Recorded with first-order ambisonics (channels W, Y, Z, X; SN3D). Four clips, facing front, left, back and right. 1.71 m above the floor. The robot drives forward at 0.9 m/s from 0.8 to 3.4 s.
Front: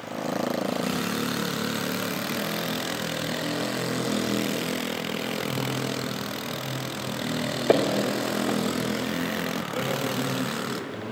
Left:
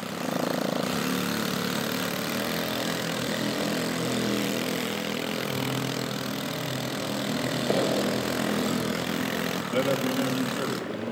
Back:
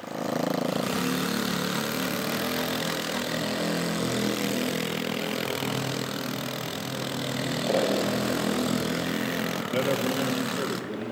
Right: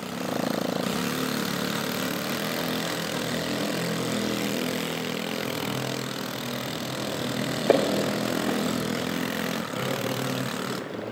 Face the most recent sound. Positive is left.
turn(degrees=140)